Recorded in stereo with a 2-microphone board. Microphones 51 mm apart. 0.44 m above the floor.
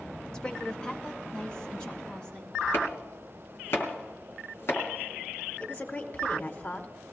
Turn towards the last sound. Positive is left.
turn(degrees=30)  # may be behind; listen again after turning